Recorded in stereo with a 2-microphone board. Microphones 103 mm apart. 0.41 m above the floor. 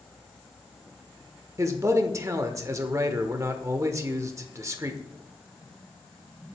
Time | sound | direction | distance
1.6 | a man speaking | 30° right (ahead or behind) | 0.8 m